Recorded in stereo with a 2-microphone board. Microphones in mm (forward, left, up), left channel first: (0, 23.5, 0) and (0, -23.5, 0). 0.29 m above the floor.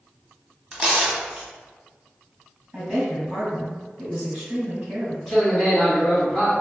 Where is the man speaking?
Centre (ahead or behind), 1.9 m.